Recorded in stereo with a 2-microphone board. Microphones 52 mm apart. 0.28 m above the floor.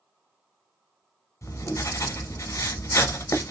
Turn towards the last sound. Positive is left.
turn(degrees=80)